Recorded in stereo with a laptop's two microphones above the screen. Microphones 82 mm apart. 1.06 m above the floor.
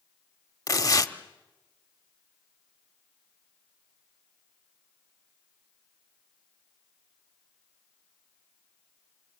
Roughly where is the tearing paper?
Left.